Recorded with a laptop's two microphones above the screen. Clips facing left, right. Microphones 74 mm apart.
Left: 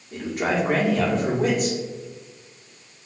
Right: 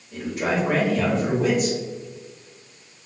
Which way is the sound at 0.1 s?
45° left (ahead or behind).